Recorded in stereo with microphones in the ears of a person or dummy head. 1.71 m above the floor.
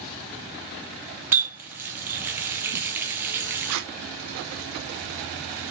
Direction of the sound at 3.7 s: 65° right (ahead or behind).